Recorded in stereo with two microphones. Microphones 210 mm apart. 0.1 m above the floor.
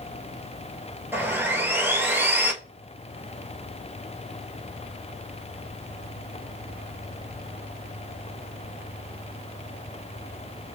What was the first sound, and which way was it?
Sawing, 10° right (ahead or behind).